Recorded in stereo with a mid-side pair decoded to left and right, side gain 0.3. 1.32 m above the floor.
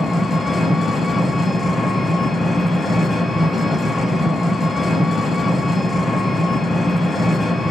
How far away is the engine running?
About 1.6 m.